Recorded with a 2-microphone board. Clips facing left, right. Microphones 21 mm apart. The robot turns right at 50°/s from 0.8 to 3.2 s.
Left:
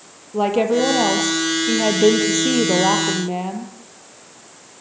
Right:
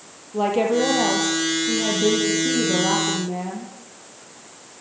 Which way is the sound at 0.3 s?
15° left.